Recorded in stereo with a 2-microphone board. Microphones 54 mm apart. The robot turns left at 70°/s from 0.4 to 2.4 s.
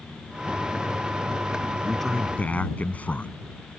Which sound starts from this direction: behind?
A man speaking, at 1.8 s.